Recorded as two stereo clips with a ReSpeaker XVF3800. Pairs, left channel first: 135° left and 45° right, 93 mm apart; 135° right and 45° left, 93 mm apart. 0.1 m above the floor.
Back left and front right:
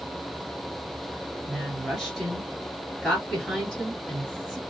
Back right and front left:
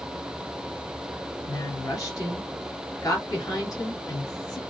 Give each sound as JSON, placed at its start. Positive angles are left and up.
{"t": 1.5, "sound": "a woman speaking", "azimuth_deg": -135, "distance_m": 1.8}